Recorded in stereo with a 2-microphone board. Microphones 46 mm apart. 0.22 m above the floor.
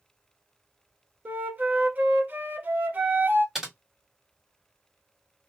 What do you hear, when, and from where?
1.2 s a flute: 40° right (ahead or behind), 0.9 m
3.5 s typing on a keyboard: 10° right (ahead or behind), 1.5 m